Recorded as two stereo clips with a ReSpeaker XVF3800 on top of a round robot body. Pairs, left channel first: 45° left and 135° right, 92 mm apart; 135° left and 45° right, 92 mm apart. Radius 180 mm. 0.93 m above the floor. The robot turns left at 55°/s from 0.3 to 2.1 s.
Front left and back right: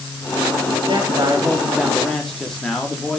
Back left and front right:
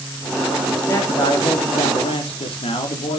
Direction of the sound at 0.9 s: 165° right.